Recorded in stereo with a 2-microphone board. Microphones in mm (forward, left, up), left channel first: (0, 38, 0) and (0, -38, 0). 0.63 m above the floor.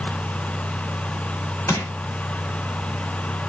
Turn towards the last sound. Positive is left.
turn(degrees=45)  # may be behind; listen again after turning